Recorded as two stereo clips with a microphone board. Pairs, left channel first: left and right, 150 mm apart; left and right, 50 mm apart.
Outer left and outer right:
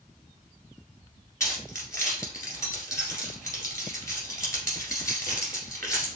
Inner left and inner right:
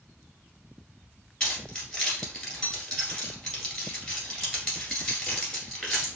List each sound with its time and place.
1.4 s keys jangling: 20° left (ahead or behind), 1.6 m